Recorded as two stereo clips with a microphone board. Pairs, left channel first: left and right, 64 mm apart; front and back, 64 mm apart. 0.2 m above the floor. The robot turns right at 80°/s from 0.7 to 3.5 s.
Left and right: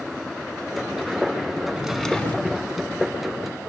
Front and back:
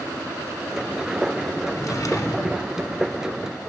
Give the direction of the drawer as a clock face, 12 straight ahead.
1 o'clock.